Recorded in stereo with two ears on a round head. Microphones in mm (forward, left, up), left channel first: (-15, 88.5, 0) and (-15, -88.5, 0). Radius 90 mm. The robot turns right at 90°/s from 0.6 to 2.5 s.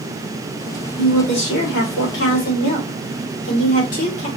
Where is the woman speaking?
5° right, 1.9 m; by 4.3 s 135° left, 1.9 m.